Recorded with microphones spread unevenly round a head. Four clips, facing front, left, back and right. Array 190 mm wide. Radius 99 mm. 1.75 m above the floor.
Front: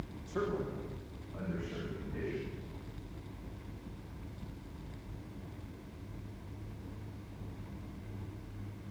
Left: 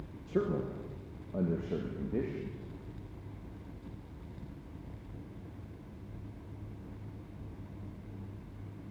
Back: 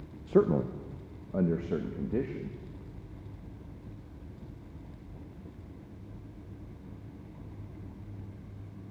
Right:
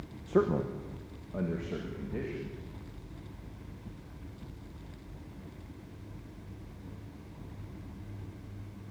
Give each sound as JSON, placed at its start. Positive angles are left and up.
{"t": 0.3, "sound": "a man speaking", "azimuth_deg": -155, "distance_m": 1.1}